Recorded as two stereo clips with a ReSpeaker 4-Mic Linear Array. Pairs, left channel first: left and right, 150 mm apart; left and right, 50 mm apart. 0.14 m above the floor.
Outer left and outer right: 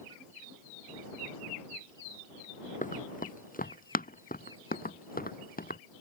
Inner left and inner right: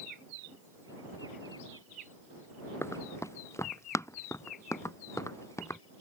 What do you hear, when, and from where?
2.8 s running footsteps: 65° left (ahead or behind); by 5.8 s 90° left